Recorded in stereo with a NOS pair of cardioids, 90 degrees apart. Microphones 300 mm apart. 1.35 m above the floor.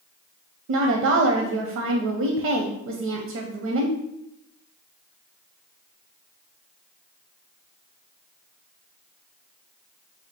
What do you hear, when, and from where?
0.7 s a woman speaking: 70° right, 0.7 m